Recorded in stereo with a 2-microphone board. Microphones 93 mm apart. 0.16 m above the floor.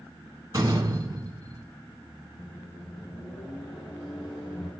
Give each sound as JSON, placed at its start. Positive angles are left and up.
{"t": 0.5, "sound": "a door slam", "side_deg": -45, "distance_m": 0.9}
{"t": 2.4, "sound": "a microwave", "side_deg": 65, "distance_m": 4.0}